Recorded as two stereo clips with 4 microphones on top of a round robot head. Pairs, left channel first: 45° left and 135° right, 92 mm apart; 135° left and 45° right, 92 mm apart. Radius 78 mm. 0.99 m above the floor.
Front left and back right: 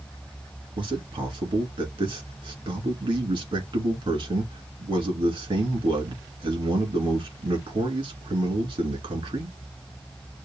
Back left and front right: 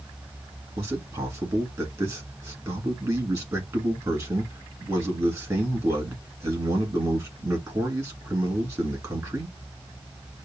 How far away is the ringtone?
No ringtone in this recording.